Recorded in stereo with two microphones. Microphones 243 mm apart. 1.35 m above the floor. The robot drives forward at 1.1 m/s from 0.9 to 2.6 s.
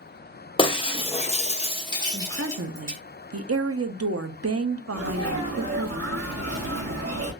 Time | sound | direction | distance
0.6 | breaking glass | 20° left (ahead or behind) | 0.8 m
2.1 | a woman speaking | 40° right (ahead or behind) | 0.7 m
4.9 | a sneeze | 75° right (ahead or behind) | 1.0 m